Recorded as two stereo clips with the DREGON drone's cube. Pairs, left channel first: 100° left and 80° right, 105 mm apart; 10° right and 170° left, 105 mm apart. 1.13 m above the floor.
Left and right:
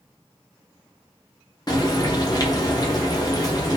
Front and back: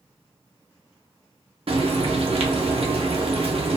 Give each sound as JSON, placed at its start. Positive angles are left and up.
{"t": 1.7, "sound": "frying", "azimuth_deg": 150, "distance_m": 0.6}